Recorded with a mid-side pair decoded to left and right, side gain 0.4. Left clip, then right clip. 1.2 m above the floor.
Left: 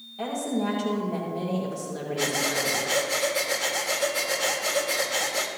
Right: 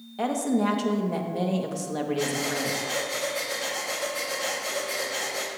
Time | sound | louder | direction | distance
0.2 | a woman speaking | right 3 dB | 55° right | 2 m
2.2 | breathing | left 5 dB | 35° left | 2.0 m